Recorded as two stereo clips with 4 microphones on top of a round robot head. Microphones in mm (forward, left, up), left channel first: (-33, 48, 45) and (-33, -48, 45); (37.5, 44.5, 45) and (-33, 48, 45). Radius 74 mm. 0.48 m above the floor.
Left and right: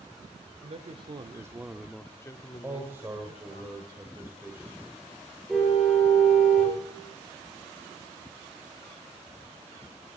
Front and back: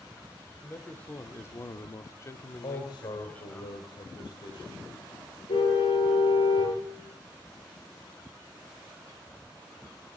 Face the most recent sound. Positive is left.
turn(degrees=-5)